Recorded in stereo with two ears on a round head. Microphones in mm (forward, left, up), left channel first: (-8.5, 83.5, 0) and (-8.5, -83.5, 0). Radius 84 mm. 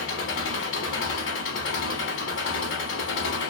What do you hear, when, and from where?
0.0 s an engine running: 75° left (ahead or behind), 0.9 m